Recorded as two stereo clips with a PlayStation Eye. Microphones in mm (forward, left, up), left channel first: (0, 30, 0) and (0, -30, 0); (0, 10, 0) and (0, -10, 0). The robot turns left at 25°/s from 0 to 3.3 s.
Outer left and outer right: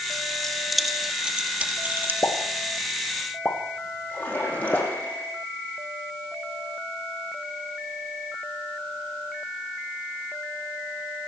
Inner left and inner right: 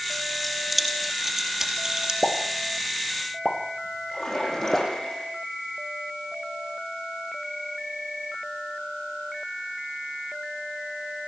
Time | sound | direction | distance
0.4 | keys jangling | 5° left (ahead or behind) | 3.5 m
2.2 | a pop | 55° left (ahead or behind) | 4.5 m
4.1 | a splash | 30° left (ahead or behind) | 8.5 m